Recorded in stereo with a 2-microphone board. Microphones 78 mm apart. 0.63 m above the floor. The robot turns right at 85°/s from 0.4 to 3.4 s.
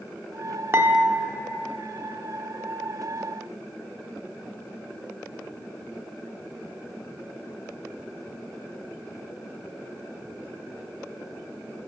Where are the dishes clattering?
35° right, 0.7 m; by 1.4 s 20° left, 0.7 m.